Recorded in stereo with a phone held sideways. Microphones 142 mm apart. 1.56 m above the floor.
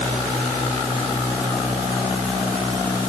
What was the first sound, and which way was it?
Only background noise.